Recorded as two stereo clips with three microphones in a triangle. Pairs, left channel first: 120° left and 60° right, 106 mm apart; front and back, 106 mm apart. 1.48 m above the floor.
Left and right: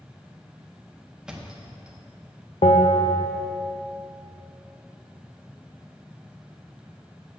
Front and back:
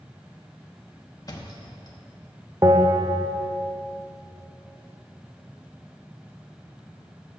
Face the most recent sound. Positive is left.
turn(degrees=125)